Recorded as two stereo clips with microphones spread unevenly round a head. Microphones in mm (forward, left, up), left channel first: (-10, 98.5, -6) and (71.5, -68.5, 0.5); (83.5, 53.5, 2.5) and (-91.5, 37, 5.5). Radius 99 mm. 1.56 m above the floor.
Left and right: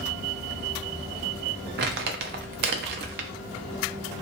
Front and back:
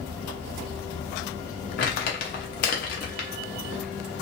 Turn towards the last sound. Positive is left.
turn(degrees=-40)